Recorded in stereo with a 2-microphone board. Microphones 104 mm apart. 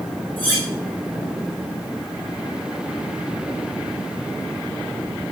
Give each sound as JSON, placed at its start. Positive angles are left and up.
{"t": 0.4, "sound": "cutlery clinking", "side_deg": 15, "distance_m": 6.0}